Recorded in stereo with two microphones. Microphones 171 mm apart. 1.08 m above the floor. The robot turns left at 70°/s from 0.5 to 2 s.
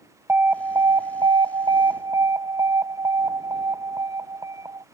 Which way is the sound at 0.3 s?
10° right (ahead or behind).